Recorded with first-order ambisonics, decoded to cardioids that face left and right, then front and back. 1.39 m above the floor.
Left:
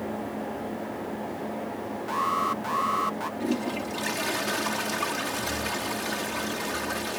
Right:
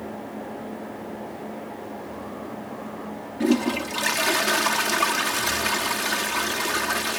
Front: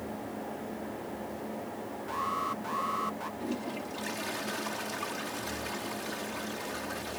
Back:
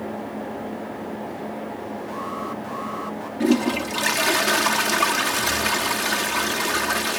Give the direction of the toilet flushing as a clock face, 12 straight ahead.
5 o'clock.